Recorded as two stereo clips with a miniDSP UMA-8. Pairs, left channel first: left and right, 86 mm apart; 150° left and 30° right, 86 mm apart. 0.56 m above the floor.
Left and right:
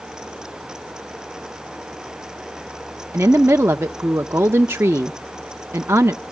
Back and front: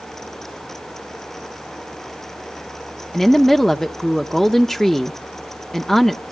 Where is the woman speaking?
130° right, 0.7 m.